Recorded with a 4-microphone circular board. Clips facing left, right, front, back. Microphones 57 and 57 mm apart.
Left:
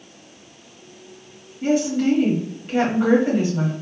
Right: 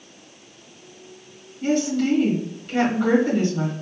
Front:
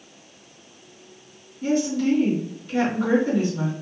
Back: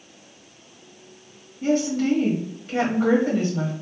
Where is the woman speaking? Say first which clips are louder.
Left 2 dB, even; 160° left, 1.8 m.